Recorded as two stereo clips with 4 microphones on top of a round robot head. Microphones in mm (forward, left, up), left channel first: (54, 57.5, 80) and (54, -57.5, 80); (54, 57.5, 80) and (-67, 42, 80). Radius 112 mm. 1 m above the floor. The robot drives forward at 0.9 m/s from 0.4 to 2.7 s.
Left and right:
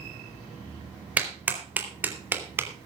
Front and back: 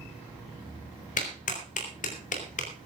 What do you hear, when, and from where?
1.2 s a clap: 15° right, 4 m; by 2.9 s 20° right, 3 m